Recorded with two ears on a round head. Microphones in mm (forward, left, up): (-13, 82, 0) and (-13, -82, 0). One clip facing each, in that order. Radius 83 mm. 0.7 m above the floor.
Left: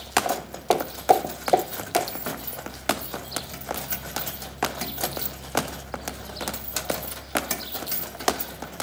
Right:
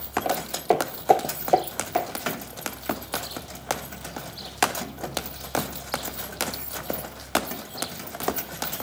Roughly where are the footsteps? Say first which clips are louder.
Right 4 dB; centre.